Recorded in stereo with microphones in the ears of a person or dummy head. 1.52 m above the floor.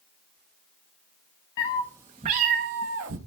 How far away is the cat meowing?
About 0.7 m.